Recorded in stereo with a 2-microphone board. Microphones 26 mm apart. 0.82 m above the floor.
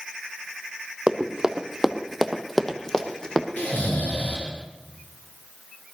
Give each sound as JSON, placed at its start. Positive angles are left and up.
{"t": 1.1, "sound": "running footsteps", "side_deg": -40, "distance_m": 1.5}
{"t": 3.6, "sound": "snoring", "side_deg": 75, "distance_m": 3.0}